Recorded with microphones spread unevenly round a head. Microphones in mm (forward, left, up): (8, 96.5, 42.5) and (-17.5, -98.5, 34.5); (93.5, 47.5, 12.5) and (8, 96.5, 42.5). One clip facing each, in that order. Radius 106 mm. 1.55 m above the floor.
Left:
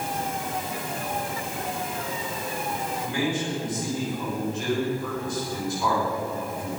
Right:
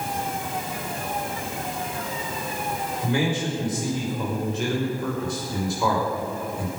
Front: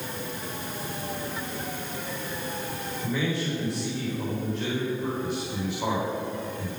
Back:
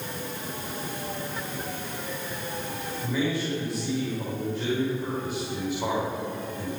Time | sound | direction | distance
3.0 | a man speaking | 120° right | 6 m